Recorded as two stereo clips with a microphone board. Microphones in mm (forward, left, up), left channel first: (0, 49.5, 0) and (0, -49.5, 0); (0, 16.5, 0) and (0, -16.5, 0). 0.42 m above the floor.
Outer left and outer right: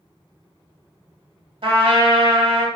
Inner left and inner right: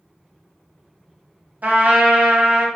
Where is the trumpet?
60° right (ahead or behind), 0.8 m.